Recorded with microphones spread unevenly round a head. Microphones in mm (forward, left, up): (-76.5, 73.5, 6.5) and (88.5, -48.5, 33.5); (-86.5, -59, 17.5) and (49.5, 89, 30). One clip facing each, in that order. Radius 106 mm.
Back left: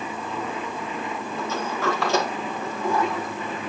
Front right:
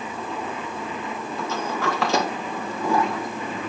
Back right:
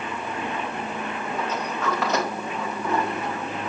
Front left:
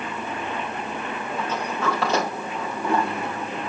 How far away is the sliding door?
About 2 m.